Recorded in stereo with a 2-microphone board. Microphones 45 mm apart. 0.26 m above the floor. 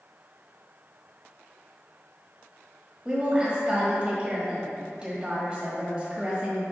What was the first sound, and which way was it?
A woman speaking, 20° right (ahead or behind).